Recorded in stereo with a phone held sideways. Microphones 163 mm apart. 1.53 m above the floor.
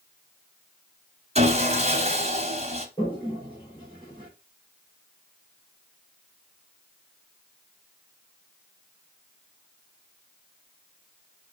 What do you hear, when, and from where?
1.4 s sawing: 40° right (ahead or behind), 1.3 m
3.0 s a toilet flushing: 30° left (ahead or behind), 3 m